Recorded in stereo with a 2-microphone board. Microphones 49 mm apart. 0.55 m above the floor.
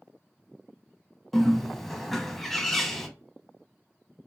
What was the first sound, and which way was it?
A bird, centre (ahead or behind).